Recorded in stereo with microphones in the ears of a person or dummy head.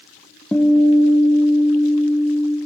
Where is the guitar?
5° left (ahead or behind), 1.1 m.